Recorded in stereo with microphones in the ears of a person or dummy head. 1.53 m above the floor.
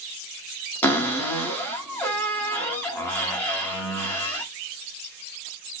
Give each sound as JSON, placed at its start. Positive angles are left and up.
{"t": 0.8, "sound": "a cupboard door", "side_deg": 15, "distance_m": 0.8}